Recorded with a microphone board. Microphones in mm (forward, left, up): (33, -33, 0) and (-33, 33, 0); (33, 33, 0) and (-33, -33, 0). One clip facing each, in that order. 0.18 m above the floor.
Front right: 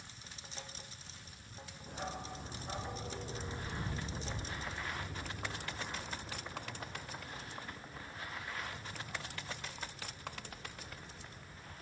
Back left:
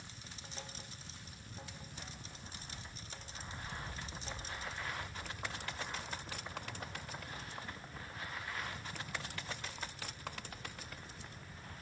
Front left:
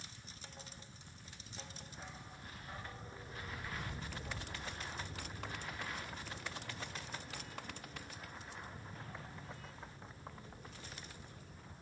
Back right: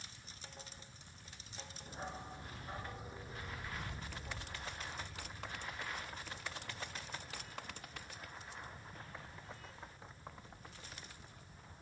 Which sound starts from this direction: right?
A dog barking, at 1.9 s.